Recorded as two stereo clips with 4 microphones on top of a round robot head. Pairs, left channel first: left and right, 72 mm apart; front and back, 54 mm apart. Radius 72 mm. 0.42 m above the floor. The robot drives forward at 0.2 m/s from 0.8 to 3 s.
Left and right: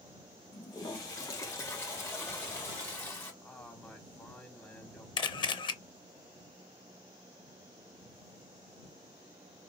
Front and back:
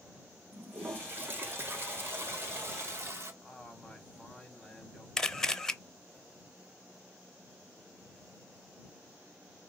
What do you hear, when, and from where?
0.5 s a toilet flushing: 135° left, 1.0 m; by 3.3 s 150° left, 1.3 m
3.4 s a man speaking: 95° left, 1.3 m
5.2 s a camera shutter: 80° left, 0.6 m